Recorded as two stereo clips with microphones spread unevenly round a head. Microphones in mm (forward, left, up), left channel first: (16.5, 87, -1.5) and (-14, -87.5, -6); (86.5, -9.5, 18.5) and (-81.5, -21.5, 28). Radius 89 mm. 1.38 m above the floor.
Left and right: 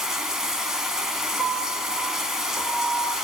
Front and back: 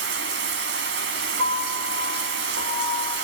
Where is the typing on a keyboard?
I don't hear typing on a keyboard.